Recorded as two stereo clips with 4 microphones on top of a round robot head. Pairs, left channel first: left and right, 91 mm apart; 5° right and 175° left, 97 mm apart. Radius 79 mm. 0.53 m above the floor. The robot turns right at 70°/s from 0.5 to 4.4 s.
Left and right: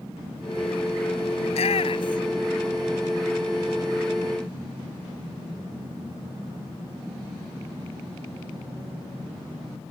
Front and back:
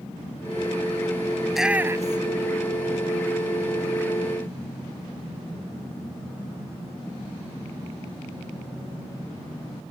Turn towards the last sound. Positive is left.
turn(degrees=-75)